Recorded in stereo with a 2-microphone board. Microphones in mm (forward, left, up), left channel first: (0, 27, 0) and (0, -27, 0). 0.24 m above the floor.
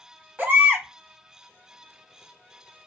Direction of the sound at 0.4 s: 30° right (ahead or behind).